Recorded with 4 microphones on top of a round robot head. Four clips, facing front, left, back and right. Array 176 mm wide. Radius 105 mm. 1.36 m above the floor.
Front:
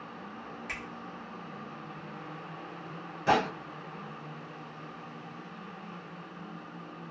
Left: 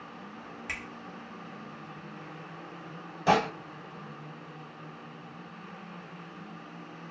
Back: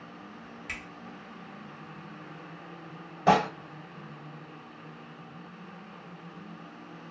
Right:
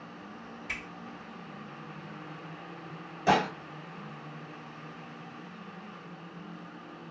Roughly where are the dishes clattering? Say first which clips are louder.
Left 1 dB, back 4 dB; behind.